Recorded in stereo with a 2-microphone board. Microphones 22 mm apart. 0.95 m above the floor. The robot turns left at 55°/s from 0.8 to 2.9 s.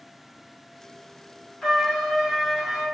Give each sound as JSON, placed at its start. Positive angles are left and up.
{"t": 1.6, "sound": "a trumpet", "azimuth_deg": 25, "distance_m": 1.4}